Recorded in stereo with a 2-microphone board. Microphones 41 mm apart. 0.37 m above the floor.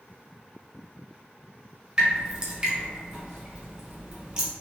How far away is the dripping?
About 1.4 m.